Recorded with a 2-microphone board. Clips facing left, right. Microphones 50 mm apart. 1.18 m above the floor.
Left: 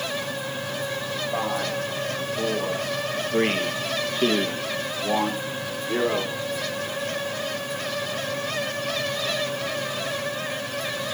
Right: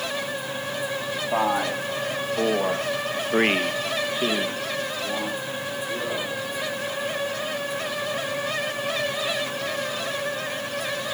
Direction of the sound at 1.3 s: 80° right.